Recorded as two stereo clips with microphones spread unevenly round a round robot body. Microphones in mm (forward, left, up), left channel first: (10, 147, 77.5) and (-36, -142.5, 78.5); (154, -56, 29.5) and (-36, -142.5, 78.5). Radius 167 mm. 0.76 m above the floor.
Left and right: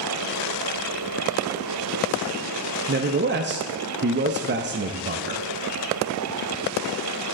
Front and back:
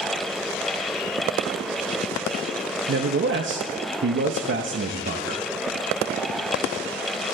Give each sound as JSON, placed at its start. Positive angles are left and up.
{"t": 2.9, "sound": "a man speaking", "azimuth_deg": -135, "distance_m": 0.7}